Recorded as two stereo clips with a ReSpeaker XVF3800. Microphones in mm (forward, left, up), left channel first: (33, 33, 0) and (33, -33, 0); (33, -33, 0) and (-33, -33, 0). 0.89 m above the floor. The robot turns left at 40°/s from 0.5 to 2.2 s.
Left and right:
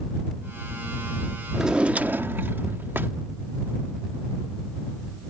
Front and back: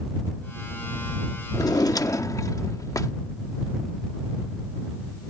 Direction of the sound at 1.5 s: 5° right.